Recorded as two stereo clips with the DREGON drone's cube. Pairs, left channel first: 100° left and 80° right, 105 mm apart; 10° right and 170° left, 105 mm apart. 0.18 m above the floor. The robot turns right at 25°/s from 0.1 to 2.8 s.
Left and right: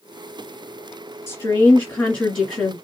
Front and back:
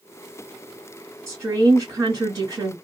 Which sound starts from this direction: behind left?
A woman speaking, at 1.3 s.